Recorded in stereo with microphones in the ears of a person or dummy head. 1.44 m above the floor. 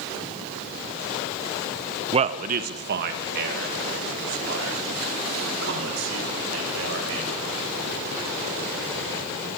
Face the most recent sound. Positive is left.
turn(degrees=-70)  # may be behind; listen again after turning